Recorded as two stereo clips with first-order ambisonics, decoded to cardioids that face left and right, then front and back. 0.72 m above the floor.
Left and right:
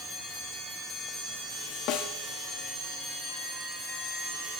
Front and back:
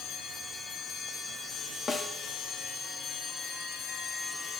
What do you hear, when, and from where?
1.9 s a snare drum: 75° left, 1.0 m